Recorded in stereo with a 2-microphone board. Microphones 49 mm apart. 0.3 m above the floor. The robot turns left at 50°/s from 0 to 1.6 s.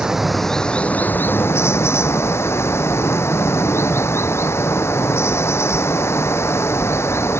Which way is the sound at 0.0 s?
165° right.